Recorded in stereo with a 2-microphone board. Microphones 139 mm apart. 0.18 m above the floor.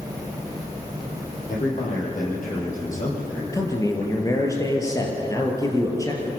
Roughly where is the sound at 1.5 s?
Left.